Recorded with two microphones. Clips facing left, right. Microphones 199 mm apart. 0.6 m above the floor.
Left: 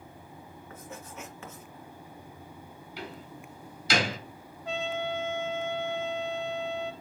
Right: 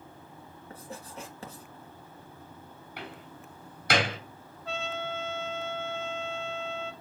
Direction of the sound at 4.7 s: 15° left (ahead or behind).